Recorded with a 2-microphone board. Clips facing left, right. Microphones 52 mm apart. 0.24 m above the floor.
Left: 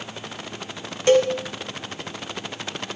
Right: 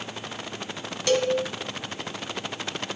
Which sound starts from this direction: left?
A cowbell, at 1.1 s.